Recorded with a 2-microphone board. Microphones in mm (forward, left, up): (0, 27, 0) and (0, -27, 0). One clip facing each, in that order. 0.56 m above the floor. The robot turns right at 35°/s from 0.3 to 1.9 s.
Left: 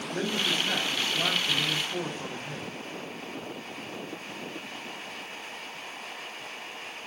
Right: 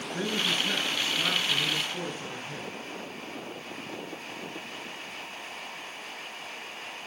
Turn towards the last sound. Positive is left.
turn(degrees=150)